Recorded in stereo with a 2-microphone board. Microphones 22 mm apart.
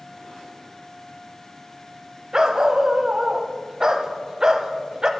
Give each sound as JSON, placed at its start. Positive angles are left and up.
{"t": 2.3, "sound": "a dog barking", "side_deg": -30, "distance_m": 0.5}